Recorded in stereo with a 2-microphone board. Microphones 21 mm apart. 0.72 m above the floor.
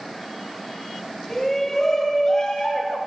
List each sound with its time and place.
1.3 s a shout: 15° left (ahead or behind), 3 m; by 3.0 s 50° left (ahead or behind), 2.5 m